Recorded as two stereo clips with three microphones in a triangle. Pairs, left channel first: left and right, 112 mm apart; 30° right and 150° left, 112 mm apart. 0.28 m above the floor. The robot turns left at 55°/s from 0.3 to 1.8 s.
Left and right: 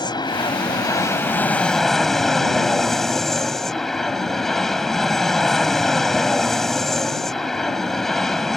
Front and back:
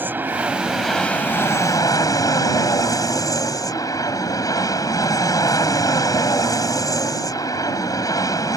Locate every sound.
0.0 s an aircraft: 85° left; by 8.6 s 5° left